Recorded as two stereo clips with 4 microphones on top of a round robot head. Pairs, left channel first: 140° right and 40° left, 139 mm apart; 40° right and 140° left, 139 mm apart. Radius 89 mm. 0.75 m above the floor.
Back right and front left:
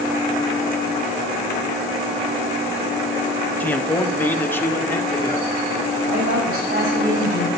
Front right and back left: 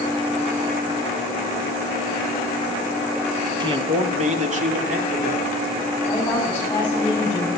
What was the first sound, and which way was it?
A man speaking, 150° left.